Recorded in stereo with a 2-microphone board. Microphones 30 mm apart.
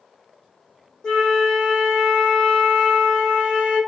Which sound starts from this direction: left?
A flute, at 1.0 s.